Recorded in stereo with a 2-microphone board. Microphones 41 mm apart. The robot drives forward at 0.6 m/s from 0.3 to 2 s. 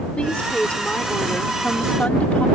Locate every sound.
0.2 s a woman speaking: 30° left (ahead or behind); by 2.5 s 35° left (ahead or behind)